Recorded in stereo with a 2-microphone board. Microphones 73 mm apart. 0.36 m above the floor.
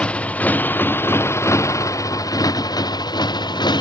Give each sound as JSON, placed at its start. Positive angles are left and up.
{"t": 0.0, "sound": "a motorcycle", "side_deg": 15}